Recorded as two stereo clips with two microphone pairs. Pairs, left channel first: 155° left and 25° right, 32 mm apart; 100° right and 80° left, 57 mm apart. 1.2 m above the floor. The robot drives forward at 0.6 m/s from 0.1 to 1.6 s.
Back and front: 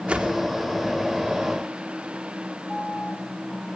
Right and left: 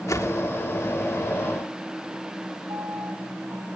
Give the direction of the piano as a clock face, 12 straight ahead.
9 o'clock.